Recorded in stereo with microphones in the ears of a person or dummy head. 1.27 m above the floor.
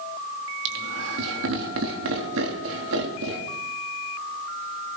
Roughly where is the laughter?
Right.